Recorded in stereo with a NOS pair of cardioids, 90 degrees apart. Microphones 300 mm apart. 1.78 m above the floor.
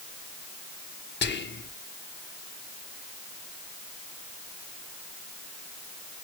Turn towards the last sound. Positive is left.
turn(degrees=35)